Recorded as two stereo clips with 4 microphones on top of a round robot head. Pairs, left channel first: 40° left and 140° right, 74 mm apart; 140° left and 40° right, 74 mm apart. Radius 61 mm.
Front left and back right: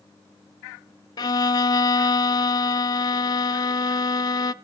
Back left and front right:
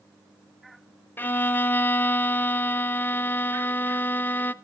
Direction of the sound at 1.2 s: 75° left.